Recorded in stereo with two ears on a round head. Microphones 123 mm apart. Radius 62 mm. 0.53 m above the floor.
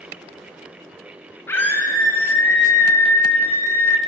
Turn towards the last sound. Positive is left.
turn(degrees=15)  # may be behind; listen again after turning